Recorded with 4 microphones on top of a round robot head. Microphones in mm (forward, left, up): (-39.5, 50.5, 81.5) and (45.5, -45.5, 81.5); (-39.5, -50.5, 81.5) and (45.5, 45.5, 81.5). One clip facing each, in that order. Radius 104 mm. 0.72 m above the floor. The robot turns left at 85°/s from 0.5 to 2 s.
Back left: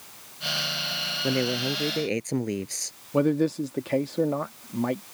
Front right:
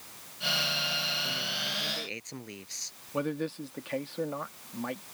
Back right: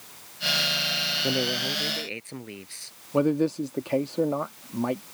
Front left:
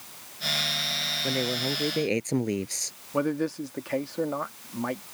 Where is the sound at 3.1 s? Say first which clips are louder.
Back left 10 dB, back right 4 dB; 165° left.